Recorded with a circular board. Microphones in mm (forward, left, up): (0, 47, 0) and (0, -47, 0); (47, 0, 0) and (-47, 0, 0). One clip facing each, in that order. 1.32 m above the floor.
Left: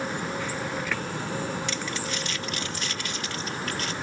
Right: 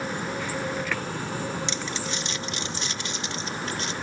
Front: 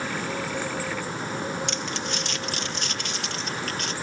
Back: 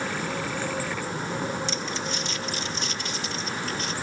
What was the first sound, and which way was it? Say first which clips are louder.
Crumpling: even, even; 20° right.